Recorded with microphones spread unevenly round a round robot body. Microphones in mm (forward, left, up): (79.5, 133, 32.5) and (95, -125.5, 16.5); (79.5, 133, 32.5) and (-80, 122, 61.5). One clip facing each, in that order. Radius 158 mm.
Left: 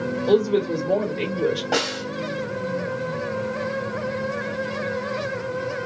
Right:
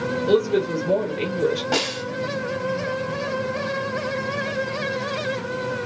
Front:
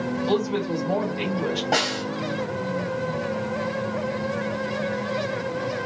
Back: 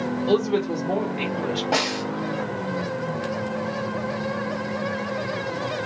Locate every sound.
0.3 s a woman speaking: 150° right, 1.3 m; by 1.6 s 25° right, 1.2 m
1.7 s a snare drum: 70° right, 1.7 m